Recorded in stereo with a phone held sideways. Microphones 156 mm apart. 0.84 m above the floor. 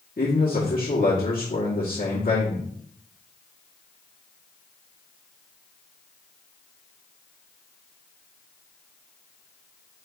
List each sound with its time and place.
0.2 s a man speaking: 60° left (ahead or behind), 1.6 m